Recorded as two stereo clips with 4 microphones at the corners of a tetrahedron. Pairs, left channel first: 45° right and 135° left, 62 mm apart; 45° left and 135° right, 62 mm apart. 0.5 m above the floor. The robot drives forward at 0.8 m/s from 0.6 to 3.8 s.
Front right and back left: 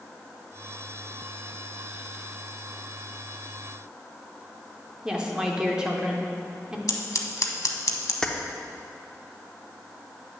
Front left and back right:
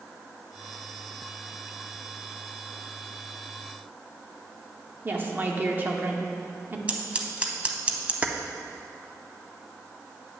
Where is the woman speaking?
160° right, 0.8 m.